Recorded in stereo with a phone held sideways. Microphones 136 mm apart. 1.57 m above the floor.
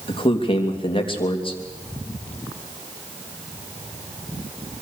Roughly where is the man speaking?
Left.